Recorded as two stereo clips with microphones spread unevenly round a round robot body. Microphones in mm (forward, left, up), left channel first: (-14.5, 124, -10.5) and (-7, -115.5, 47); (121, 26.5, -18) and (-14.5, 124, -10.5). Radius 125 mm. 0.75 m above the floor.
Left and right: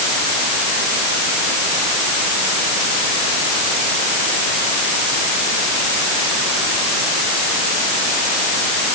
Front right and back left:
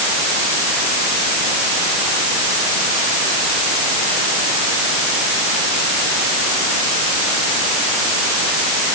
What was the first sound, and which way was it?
Only background noise.